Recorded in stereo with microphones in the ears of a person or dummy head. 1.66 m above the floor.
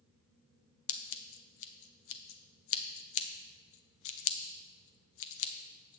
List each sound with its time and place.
0.9 s scissors: 75° left (ahead or behind), 0.7 m